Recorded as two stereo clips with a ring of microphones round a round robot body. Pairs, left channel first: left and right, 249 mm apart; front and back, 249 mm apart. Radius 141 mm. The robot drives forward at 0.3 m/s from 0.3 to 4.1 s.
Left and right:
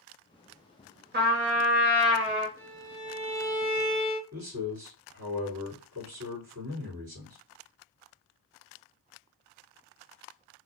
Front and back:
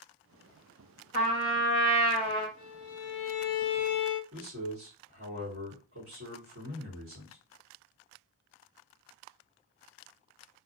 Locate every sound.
1.1 s a trumpet: 50° right, 1.5 m; by 2.5 s 70° right, 1.3 m
2.6 s a violin: 10° left, 1.0 m; by 4.2 s 20° left, 0.5 m
4.3 s a man speaking: 140° right, 2.5 m